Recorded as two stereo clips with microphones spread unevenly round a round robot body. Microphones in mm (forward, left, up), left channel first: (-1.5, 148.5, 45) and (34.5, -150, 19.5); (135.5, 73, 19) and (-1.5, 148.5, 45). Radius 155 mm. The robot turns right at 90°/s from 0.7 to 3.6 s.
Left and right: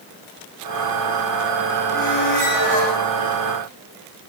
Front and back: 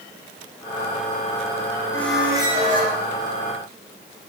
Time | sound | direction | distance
1.9 | a squeak | 45° left | 7 m